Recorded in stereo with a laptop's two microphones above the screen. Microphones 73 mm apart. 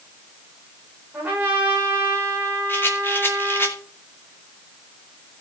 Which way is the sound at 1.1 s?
25° right (ahead or behind).